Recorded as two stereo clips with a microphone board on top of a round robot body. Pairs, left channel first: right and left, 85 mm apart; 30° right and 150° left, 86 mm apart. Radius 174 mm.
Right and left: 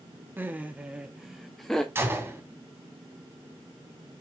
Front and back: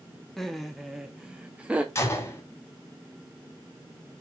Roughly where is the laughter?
Ahead left.